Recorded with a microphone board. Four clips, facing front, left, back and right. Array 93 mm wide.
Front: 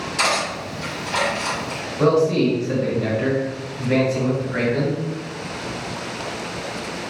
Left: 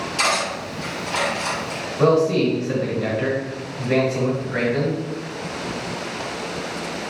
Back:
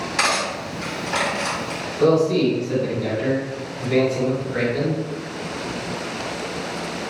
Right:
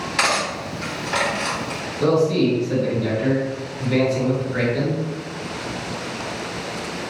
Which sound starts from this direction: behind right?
Cutlery clinking, at 0.2 s.